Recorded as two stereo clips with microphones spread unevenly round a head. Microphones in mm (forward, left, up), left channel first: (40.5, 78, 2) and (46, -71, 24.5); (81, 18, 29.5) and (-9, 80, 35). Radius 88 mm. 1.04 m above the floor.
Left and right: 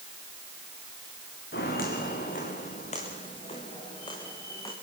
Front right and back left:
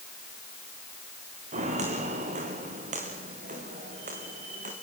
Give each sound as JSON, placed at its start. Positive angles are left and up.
{"t": 1.5, "sound": "footsteps", "azimuth_deg": 135, "distance_m": 5.0}